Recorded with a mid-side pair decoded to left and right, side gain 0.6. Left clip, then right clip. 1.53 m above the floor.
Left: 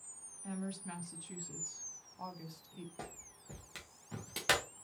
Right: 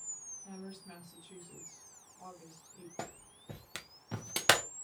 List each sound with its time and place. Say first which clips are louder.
0.4 s a woman speaking: left 4 dB; 55° left, 1.6 m
3.0 s a clap: right 8 dB; 40° right, 1.0 m